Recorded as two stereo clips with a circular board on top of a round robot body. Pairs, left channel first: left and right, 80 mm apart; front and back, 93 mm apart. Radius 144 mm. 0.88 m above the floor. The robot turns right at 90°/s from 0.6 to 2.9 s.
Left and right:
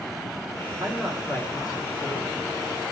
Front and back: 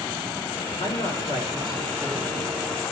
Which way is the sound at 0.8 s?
35° right.